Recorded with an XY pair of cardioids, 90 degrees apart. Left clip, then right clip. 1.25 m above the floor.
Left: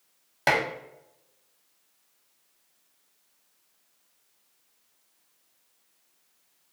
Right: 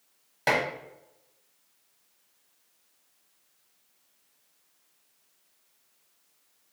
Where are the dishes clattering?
35° left, 0.9 m.